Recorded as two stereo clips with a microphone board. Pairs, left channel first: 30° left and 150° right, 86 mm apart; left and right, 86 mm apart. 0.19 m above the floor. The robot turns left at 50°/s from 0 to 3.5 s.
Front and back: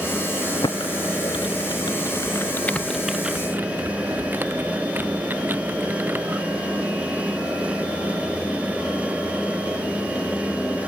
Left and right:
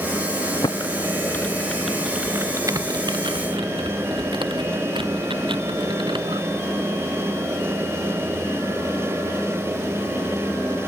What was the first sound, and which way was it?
Typing on a keyboard, 60° left.